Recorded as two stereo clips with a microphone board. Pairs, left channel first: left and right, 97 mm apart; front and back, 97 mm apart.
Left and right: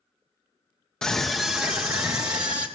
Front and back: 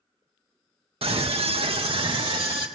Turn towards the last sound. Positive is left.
turn(degrees=-130)